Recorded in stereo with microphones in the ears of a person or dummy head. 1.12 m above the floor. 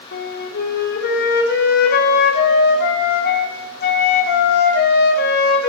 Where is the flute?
60° left (ahead or behind), 3 m.